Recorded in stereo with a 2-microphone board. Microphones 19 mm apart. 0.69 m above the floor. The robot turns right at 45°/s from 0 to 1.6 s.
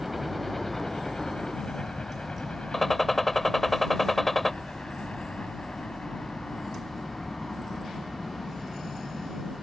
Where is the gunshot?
10° left (ahead or behind).